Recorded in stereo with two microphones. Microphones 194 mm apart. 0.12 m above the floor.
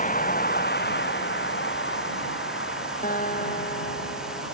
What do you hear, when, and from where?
0.0 s a vehicle: 45° left (ahead or behind); by 4.5 s 85° left
3.0 s a guitar: 50° left (ahead or behind)